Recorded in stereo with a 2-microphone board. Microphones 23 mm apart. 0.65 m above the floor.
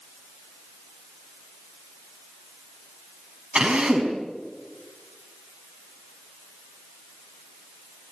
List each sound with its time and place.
3.5 s a drill: 60° right (ahead or behind), 5 m